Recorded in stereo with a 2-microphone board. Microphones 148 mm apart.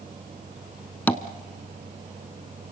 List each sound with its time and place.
1.1 s tapping: 10° left (ahead or behind), 0.8 m